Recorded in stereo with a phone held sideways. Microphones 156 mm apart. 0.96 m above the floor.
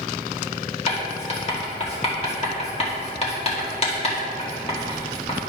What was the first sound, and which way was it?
Writing, 40° left (ahead or behind).